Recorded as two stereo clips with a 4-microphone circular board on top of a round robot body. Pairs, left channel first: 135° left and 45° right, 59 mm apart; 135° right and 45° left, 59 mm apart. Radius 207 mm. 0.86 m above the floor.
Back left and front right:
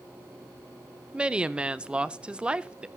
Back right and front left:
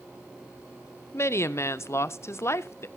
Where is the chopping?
I don't hear chopping.